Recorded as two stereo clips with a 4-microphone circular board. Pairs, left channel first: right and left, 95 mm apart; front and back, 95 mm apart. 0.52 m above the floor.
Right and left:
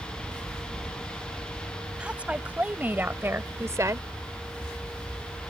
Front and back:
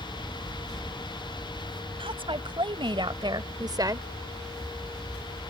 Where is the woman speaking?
170° left; by 4.1 s 135° left.